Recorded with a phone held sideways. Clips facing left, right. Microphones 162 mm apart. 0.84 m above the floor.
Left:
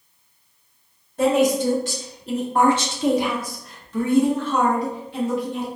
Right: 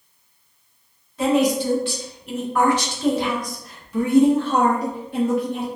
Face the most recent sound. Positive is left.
turn(degrees=-55)  # may be behind; listen again after turning